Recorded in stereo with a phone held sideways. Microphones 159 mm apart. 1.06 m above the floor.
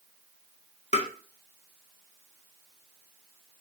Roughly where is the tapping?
Left.